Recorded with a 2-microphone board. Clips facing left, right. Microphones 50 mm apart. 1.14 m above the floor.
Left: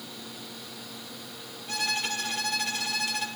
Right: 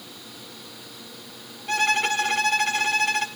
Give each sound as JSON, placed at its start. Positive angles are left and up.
{"t": 1.7, "sound": "a violin", "side_deg": -60, "distance_m": 1.4}